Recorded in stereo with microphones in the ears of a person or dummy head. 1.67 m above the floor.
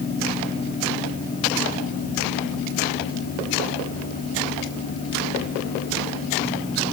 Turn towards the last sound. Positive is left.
No sound to turn to.